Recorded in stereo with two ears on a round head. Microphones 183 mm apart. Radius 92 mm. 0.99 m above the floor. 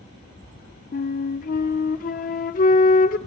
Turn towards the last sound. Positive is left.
turn(degrees=40)  # may be behind; listen again after turning